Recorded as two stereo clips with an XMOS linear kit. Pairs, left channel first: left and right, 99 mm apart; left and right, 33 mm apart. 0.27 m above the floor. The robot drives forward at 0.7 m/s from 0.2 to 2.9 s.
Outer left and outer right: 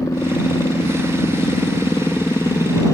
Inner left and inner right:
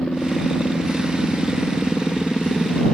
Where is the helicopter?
35° left (ahead or behind); by 3.0 s 30° left (ahead or behind).